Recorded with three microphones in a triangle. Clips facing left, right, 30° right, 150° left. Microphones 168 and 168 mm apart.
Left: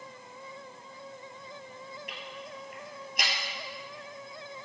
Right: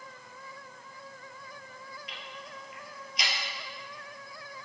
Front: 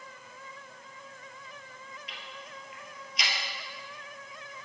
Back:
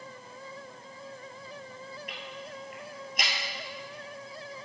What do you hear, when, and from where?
2.1 s ticking: 120° left, 1.7 m